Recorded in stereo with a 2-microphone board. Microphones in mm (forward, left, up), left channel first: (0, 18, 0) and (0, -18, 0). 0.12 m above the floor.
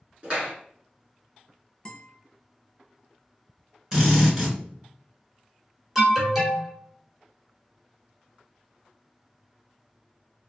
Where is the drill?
15° right (ahead or behind), 1.4 m.